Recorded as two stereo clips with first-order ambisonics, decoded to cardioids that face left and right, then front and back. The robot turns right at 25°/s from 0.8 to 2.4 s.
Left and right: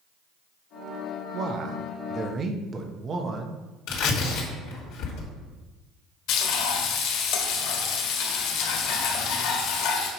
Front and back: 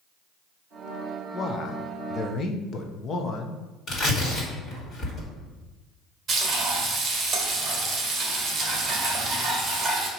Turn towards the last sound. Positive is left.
turn(degrees=115)